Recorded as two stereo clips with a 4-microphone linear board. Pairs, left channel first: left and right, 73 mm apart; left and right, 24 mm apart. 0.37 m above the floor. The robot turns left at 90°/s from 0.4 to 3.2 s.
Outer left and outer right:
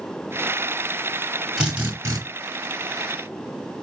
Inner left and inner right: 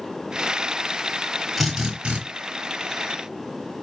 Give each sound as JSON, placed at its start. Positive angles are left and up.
{"t": 1.6, "sound": "a drill", "azimuth_deg": -10, "distance_m": 2.5}